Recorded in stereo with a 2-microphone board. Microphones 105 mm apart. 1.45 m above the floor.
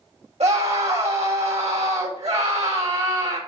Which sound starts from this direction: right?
A scream, at 0.4 s.